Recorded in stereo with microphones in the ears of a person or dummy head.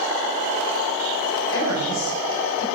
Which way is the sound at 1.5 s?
80° left.